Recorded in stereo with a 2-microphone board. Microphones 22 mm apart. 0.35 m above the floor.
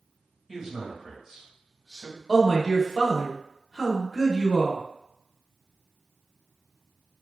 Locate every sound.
0.5 s a man speaking: 25° right (ahead or behind), 1.2 m
2.3 s a man speaking: 10° left (ahead or behind), 0.8 m